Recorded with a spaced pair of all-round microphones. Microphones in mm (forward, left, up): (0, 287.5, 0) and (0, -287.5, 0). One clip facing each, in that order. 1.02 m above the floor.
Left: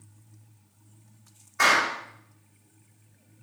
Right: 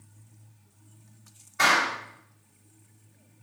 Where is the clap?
65° right (ahead or behind), 4 m.